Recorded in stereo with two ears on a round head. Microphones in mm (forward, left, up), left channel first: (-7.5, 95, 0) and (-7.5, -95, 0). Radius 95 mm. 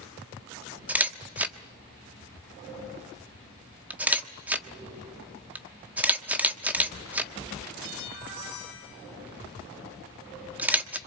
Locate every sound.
0.9 s a camera shutter: 10° right (ahead or behind), 1.2 m